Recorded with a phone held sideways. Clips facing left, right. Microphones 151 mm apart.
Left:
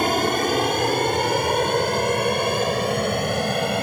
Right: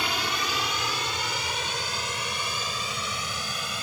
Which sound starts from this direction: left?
An aircraft, at 0.0 s.